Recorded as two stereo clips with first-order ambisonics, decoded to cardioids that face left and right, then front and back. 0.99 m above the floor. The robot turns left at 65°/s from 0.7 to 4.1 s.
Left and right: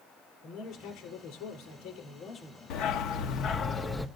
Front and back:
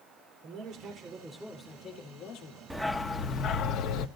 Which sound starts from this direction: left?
A dog barking, at 2.7 s.